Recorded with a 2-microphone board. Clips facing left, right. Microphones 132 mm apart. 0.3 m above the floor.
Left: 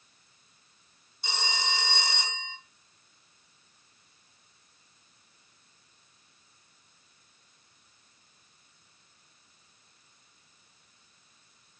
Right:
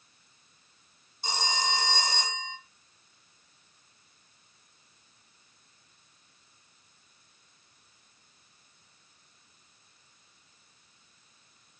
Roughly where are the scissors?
No scissors in this recording.